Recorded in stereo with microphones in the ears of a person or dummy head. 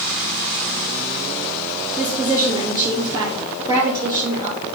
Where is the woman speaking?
20° right (ahead or behind), 2.5 m.